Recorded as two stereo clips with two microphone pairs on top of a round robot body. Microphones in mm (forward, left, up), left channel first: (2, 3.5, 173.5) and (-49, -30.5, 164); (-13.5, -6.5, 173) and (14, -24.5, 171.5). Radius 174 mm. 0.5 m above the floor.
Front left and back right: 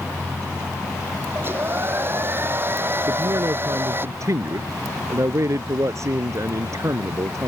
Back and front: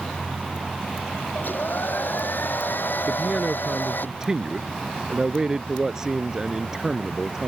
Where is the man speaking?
110° right.